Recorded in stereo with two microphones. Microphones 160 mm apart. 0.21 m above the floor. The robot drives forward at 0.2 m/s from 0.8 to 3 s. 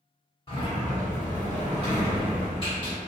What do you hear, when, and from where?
0.5 s a sliding door: 35° left (ahead or behind), 1.6 m